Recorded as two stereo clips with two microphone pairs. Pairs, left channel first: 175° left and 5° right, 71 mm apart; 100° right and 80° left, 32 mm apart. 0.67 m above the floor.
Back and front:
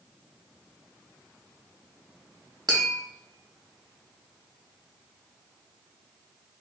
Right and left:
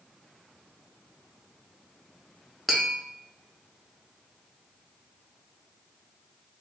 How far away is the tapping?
About 0.8 m.